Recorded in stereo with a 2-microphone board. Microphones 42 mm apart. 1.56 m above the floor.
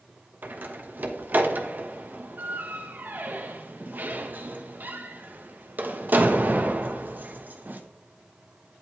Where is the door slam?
45° right (ahead or behind), 1.2 m.